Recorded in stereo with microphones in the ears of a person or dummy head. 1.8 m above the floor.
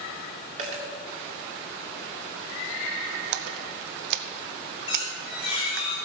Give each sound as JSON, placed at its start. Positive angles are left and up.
{"t": 0.6, "sound": "a dropped coin", "side_deg": -45, "distance_m": 1.8}
{"t": 3.3, "sound": "a splash", "side_deg": -65, "distance_m": 0.7}
{"t": 4.9, "sound": "a squeak", "side_deg": 25, "distance_m": 5.0}